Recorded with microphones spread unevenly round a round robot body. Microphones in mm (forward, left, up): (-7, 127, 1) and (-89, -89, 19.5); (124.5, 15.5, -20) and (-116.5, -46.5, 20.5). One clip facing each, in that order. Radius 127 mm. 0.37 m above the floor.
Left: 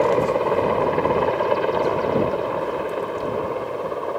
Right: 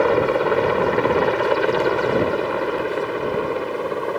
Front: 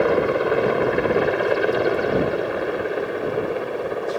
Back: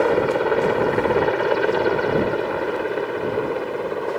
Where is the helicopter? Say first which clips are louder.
Right 1 dB, even; 70° right; by 4.2 s 80° right.